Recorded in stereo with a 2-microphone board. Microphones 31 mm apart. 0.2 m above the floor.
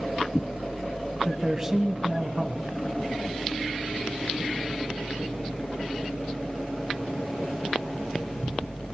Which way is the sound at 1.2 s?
15° right (ahead or behind).